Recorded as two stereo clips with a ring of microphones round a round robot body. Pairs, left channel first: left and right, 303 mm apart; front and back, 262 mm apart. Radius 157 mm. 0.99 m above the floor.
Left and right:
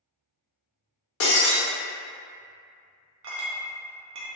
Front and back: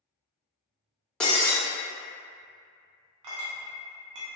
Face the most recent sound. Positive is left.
turn(degrees=-145)